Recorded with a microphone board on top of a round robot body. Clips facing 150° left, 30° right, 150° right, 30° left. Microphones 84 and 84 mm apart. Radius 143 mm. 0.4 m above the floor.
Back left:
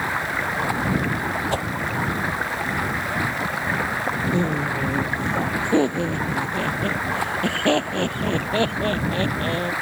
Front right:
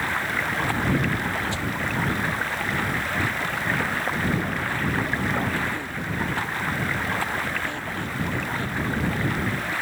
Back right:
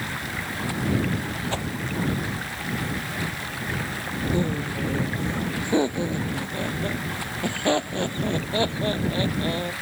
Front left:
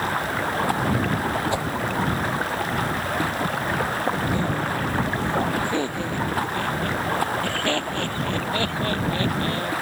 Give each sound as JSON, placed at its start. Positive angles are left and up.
{"t": 0.0, "sound": "running water", "azimuth_deg": 75}
{"t": 1.5, "sound": "a whoosh", "azimuth_deg": 105}
{"t": 4.3, "sound": "laughter", "azimuth_deg": 140}